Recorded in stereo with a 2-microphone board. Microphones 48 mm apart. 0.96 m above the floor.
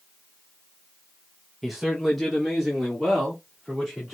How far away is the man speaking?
About 0.6 m.